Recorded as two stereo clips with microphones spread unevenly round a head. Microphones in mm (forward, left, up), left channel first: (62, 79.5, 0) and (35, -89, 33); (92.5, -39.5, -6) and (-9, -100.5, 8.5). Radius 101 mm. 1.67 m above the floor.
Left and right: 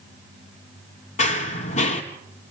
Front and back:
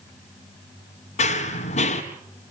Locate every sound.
1.2 s running footsteps: 35° left, 2.5 m